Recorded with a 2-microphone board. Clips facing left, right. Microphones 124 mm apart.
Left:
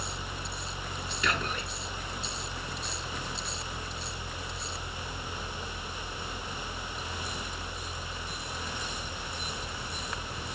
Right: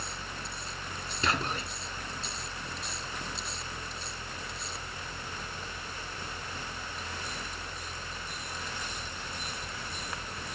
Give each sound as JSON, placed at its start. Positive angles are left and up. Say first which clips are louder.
{"t": 1.2, "sound": "whispering", "louder": "right 1 dB", "side_deg": -30, "distance_m": 2.5}